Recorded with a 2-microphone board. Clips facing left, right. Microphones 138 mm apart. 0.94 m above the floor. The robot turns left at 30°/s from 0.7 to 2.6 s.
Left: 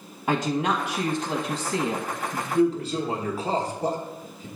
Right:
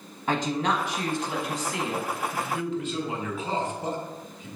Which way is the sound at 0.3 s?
155° left.